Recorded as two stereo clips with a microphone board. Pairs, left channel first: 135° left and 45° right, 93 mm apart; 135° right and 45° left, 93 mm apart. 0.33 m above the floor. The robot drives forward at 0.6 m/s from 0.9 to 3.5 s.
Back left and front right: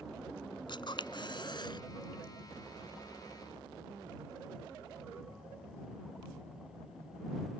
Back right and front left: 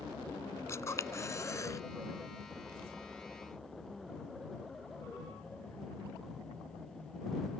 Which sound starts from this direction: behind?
A camera shutter, at 0.7 s.